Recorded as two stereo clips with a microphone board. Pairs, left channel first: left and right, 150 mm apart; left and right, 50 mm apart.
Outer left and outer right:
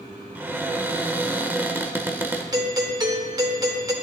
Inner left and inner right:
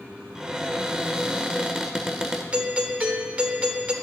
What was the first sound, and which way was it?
A cupboard door, 15° right (ahead or behind).